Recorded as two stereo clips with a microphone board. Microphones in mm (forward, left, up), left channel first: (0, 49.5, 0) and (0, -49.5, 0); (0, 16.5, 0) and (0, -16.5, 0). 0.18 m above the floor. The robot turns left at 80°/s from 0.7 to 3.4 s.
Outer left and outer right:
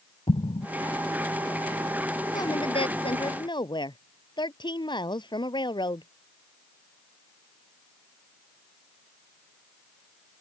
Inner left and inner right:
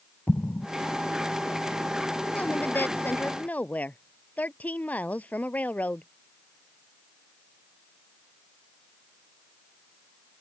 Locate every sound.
0.3 s an explosion: 70° left (ahead or behind)
2.3 s a woman speaking: 140° left; by 6.1 s 55° left